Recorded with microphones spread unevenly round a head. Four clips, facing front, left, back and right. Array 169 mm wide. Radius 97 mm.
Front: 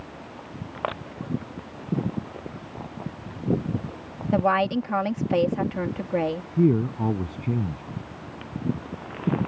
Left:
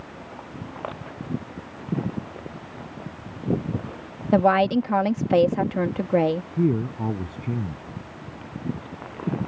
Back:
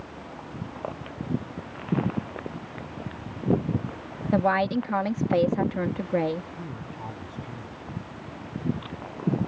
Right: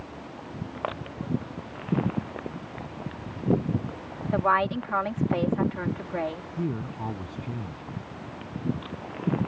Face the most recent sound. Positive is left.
turn(degrees=30)